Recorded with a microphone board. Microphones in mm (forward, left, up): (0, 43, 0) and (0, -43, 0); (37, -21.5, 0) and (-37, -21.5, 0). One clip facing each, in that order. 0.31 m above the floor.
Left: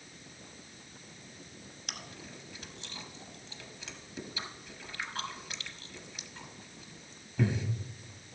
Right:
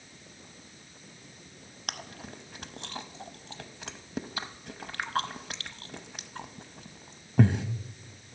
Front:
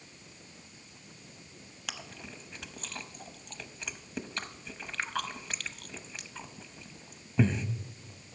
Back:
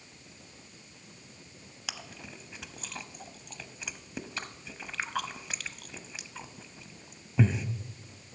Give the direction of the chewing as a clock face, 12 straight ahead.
3 o'clock.